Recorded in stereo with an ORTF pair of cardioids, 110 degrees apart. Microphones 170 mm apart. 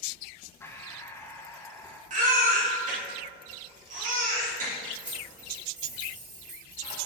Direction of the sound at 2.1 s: 50° right.